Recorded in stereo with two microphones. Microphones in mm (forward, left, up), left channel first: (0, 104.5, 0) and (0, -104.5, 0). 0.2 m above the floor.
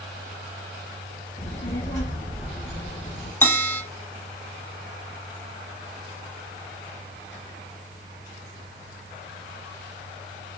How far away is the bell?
About 0.8 m.